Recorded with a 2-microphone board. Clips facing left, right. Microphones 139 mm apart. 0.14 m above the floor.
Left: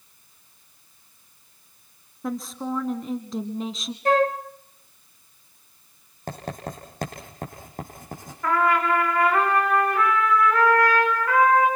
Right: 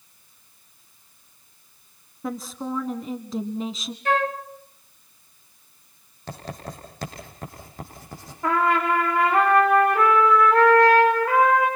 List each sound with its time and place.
2.2 s a woman speaking: centre (ahead or behind), 1.1 m
4.0 s a flute: 35° left (ahead or behind), 1.3 m
6.3 s writing: 50° left (ahead or behind), 7 m
8.4 s a trumpet: 25° right (ahead or behind), 6 m